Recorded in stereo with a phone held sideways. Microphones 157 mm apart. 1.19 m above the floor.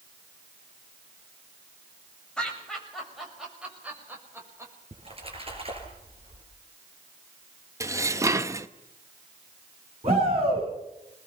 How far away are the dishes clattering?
About 0.7 m.